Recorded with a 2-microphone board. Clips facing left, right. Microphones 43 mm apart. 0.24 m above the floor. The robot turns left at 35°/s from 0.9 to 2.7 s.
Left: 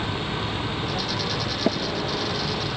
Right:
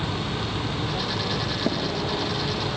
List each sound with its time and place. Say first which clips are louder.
1.7 s tapping: left 3 dB; 15° left (ahead or behind), 2.5 m; by 1.8 s 10° left (ahead or behind), 2.5 m